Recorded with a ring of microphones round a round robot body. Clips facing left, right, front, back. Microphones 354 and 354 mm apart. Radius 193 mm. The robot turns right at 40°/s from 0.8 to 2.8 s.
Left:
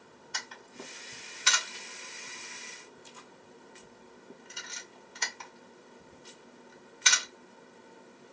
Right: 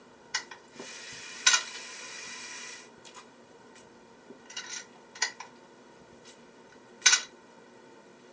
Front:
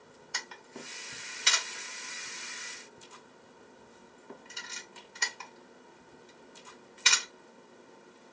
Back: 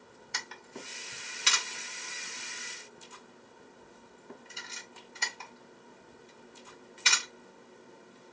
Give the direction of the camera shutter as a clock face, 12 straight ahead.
5 o'clock.